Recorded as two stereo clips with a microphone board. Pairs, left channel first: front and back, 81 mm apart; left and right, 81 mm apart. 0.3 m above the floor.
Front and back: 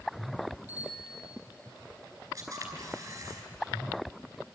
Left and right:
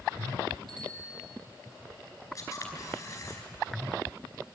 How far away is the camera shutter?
About 5 m.